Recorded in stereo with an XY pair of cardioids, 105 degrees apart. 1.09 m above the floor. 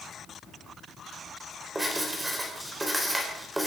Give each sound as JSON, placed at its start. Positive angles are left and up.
{"t": 1.8, "sound": "writing", "azimuth_deg": -15, "distance_m": 4.5}